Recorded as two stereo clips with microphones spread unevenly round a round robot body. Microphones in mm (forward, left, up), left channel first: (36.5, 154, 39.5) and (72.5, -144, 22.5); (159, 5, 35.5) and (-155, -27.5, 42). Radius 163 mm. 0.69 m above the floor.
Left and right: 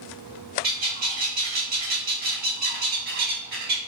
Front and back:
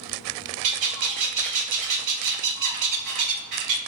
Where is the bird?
145° right, 0.8 m.